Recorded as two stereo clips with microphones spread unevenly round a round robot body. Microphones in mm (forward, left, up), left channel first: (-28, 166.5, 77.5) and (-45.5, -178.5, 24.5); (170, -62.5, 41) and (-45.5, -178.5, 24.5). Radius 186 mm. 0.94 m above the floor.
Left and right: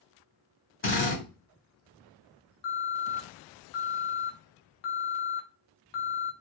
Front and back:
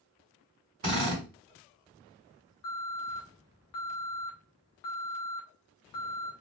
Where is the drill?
145° left, 1.6 m.